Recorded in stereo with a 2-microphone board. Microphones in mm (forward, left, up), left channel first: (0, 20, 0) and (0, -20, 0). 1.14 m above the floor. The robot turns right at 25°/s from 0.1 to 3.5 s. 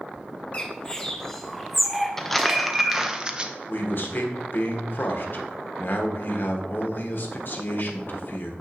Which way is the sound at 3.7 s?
55° left (ahead or behind).